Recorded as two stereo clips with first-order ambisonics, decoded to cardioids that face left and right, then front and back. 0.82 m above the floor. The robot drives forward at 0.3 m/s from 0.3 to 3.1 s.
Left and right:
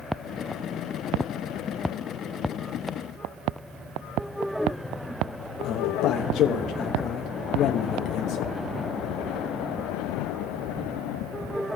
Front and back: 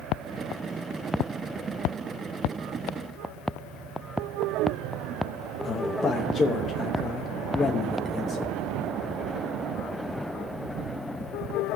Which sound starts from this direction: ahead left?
A man speaking, at 5.6 s.